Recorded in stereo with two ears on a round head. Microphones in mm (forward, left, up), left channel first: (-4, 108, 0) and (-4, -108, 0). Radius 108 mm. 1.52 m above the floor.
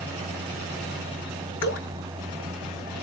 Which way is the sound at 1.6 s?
45° left (ahead or behind).